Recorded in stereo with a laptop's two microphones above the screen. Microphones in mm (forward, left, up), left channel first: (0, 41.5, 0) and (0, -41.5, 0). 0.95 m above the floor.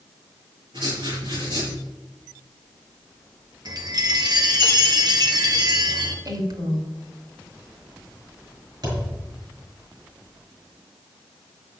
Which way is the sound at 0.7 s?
70° right (ahead or behind).